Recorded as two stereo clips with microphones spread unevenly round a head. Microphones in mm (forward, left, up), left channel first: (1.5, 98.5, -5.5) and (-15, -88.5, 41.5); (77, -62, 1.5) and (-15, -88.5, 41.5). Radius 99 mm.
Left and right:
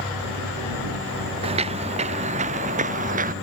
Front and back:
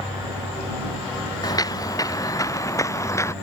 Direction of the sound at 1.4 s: 35° right.